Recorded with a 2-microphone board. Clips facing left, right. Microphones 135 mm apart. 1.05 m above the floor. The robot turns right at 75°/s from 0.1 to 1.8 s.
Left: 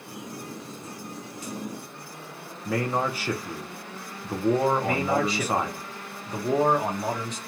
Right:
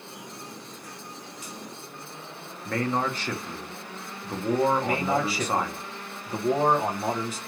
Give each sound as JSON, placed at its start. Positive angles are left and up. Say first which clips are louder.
{"t": 2.6, "sound": "a man speaking", "louder": "left 1 dB", "side_deg": 10, "distance_m": 0.5}
{"t": 4.8, "sound": "a man speaking", "louder": "left 1 dB", "side_deg": -5, "distance_m": 0.8}